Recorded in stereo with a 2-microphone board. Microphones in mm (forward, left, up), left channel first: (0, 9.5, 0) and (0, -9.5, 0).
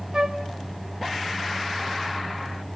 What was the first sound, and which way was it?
A flute, 45° right (ahead or behind).